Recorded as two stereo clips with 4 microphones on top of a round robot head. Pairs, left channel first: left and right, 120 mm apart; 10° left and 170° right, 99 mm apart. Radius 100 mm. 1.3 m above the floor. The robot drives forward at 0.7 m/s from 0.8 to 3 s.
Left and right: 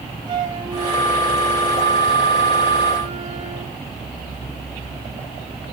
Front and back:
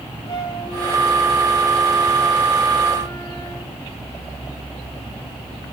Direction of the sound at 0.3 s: 40° right.